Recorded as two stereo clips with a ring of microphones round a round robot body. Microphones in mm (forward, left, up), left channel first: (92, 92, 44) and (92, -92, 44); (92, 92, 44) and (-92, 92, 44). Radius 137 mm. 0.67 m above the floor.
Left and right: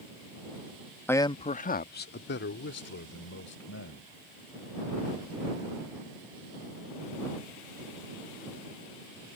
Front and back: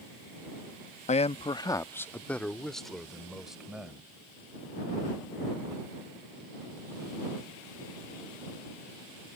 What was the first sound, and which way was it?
A man speaking, 15° left.